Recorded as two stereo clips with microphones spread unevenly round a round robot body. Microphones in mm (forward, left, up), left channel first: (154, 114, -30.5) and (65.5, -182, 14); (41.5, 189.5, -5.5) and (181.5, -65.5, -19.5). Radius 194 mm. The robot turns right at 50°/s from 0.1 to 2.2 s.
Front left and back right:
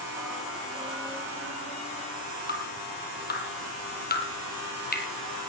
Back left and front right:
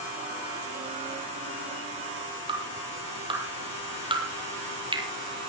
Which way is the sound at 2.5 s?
15° left.